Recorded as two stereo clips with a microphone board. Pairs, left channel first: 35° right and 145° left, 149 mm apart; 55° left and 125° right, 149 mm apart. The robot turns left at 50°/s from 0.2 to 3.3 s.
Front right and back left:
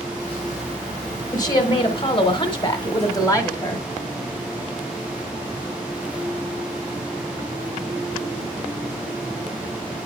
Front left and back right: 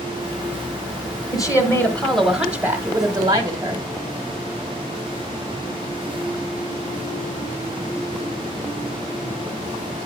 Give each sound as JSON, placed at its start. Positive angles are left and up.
{"t": 1.3, "sound": "a woman speaking", "azimuth_deg": 10, "distance_m": 1.3}